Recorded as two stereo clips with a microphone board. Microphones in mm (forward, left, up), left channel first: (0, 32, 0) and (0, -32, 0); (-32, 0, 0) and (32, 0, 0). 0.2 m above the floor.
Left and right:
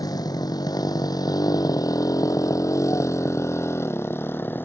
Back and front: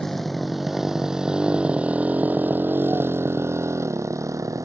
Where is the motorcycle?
95° left; by 4.7 s 30° left.